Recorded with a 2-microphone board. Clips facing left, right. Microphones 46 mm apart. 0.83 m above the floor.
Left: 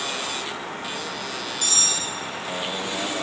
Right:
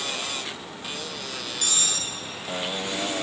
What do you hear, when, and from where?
1.6 s cutlery clinking: 40° right (ahead or behind), 0.9 m